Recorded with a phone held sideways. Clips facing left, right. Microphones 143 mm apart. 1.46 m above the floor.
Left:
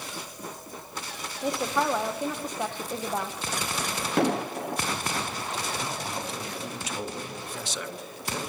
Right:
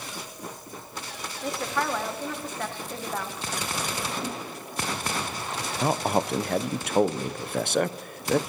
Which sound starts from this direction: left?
An explosion, at 4.2 s.